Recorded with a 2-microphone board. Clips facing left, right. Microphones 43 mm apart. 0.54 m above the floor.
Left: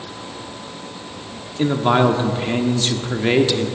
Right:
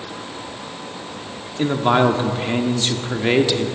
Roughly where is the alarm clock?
I don't hear an alarm clock.